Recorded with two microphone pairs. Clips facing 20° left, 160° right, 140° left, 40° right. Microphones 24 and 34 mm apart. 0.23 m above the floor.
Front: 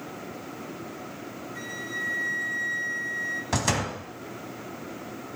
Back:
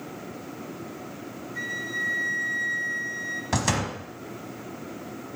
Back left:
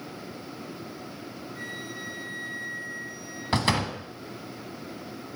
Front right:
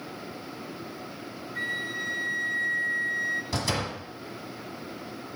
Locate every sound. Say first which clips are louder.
1.6 s a flute: back 4 dB, front right 8 dB; 80° right, 0.9 m
3.5 s a door slam: back 2 dB, back left 4 dB; 120° left, 1.3 m